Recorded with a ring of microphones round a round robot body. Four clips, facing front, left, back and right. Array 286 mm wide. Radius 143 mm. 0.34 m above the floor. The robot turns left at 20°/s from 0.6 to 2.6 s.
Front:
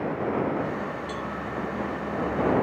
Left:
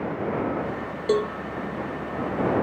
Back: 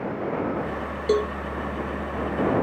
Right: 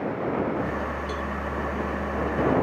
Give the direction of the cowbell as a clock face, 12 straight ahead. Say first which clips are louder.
Left 8 dB, back 11 dB; 7 o'clock.